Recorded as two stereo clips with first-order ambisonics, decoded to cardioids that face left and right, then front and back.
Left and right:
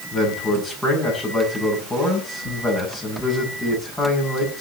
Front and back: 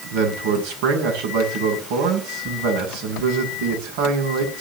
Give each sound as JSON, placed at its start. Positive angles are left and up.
{"t": 0.1, "sound": "a man speaking", "azimuth_deg": 170, "distance_m": 6.5}